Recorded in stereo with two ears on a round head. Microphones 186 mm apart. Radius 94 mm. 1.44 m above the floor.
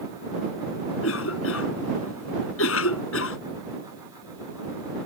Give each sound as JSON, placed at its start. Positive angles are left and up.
{"t": 1.0, "sound": "a cough", "side_deg": 75}